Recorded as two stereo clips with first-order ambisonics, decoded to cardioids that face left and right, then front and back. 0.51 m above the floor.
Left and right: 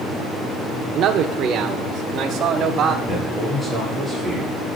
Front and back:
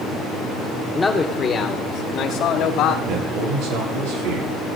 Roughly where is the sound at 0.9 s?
Right.